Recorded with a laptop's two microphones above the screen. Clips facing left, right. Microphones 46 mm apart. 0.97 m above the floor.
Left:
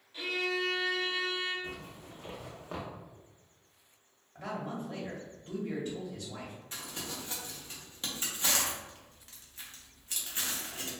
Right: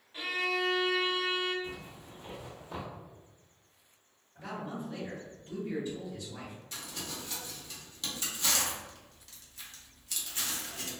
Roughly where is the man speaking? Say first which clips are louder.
Left 1 dB; left.